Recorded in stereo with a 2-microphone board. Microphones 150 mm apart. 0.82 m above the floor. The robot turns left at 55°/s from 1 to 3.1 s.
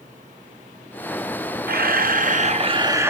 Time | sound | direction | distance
1.7 | a camera shutter | 85° right | 0.5 m